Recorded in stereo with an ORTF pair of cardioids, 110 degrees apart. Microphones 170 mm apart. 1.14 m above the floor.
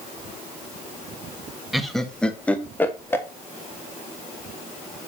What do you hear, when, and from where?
1.7 s laughter: straight ahead, 1.5 m; by 3.2 s 15° left, 2.5 m